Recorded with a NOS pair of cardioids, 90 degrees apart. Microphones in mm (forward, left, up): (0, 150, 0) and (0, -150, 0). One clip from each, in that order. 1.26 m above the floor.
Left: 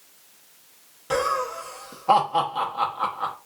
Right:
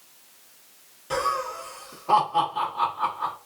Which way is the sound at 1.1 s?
35° left.